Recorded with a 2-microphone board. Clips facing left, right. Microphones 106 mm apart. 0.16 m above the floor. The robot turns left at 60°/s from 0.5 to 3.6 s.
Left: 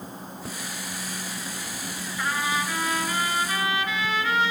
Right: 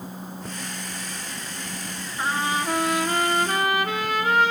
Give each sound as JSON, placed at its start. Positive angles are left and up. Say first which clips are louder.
{"t": 2.2, "sound": "a trumpet", "louder": "right 2 dB", "azimuth_deg": -30, "distance_m": 0.9}